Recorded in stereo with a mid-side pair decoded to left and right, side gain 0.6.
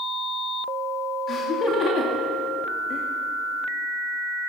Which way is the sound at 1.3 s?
45° left.